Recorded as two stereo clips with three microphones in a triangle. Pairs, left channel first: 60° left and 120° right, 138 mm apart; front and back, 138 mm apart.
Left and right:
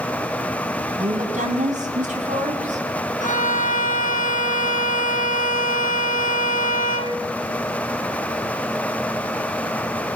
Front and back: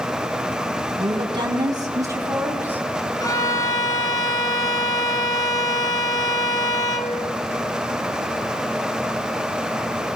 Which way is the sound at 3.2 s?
65° left.